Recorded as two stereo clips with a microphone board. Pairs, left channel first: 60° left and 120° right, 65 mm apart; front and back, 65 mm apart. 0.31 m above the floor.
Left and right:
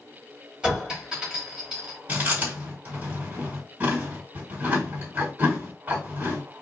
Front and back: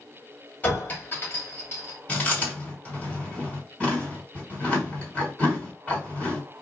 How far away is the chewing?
About 2 m.